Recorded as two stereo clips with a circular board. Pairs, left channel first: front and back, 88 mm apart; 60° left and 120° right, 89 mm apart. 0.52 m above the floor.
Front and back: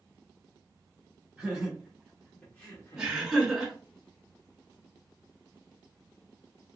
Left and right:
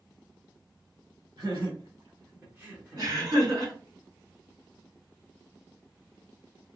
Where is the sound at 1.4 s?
105° right, 1.4 m; by 3.2 s 25° right, 1.0 m.